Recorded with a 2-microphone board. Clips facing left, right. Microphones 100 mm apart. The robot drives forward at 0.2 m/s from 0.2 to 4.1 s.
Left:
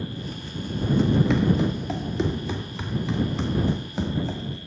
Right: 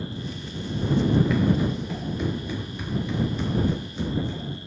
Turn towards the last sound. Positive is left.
turn(degrees=85)